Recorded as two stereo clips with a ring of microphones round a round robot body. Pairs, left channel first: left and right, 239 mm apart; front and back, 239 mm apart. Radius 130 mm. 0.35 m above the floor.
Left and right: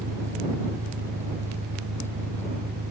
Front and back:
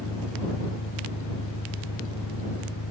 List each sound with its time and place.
0.0 s an engine running: 40° right